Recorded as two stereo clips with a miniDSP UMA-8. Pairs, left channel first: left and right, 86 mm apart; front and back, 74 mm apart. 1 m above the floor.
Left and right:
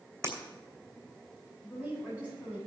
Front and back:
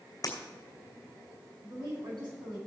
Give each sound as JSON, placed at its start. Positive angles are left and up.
{"t": 0.2, "sound": "breaking glass", "azimuth_deg": -35, "distance_m": 3.0}
{"t": 1.6, "sound": "a woman speaking", "azimuth_deg": -165, "distance_m": 7.0}